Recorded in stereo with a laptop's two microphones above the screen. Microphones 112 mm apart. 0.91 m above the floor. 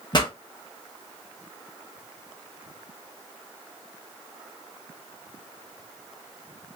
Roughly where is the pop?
Left.